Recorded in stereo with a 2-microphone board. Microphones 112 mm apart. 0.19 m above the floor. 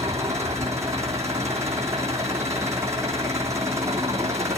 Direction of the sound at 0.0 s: 25° right (ahead or behind).